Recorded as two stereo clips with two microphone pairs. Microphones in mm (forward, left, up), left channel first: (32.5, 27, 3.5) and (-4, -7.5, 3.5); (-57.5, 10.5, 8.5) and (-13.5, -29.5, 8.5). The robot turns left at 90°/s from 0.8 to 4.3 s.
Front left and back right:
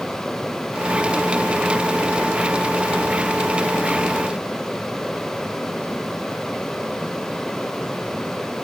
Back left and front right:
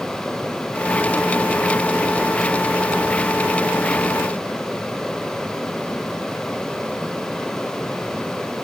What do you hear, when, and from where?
Only background noise.